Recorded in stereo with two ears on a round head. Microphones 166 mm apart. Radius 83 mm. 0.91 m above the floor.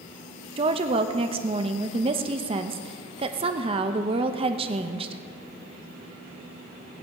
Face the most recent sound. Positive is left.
turn(degrees=-30)  # may be behind; listen again after turning